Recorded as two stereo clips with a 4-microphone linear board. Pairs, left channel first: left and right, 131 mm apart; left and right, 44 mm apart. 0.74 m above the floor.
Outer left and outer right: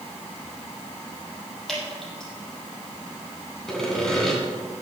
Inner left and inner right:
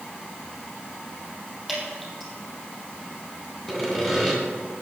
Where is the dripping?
5° left (ahead or behind), 4.5 m.